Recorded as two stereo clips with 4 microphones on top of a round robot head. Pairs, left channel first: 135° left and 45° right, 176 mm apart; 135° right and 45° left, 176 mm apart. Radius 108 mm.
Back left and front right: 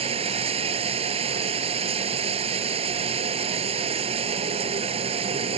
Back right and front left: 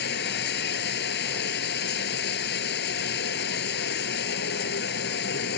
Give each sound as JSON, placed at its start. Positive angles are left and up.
{"t": 0.0, "sound": "running water", "azimuth_deg": -105}